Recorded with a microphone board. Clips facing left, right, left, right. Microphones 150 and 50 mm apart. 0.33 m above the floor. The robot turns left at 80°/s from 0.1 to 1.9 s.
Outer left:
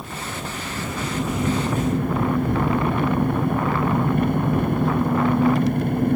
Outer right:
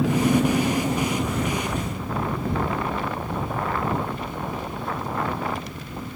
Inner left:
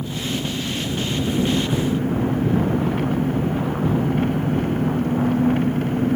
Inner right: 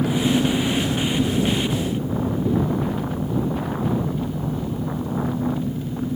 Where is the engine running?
90° right; by 6.2 s 125° left.